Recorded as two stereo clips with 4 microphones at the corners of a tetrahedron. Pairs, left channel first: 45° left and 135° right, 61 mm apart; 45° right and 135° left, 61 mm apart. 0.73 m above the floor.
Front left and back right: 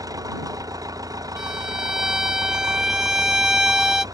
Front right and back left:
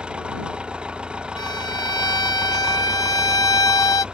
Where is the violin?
55° right.